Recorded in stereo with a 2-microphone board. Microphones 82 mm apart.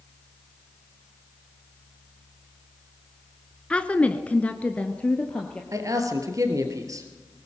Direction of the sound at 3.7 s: 15° left (ahead or behind).